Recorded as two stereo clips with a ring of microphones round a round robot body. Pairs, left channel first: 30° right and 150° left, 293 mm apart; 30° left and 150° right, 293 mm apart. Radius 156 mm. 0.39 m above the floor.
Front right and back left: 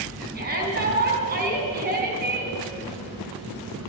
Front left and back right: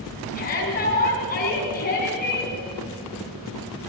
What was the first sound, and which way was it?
A shout, 90° left.